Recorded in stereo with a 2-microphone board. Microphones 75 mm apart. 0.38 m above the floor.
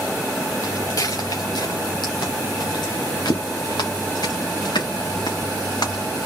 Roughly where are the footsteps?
Left.